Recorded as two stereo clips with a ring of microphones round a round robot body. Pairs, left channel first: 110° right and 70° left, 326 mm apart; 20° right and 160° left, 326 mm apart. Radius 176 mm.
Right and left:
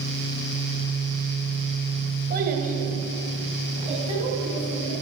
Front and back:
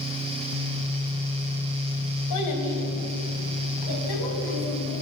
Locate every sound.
2.3 s a child speaking: 5° left, 2 m; by 4.9 s 10° right, 3.5 m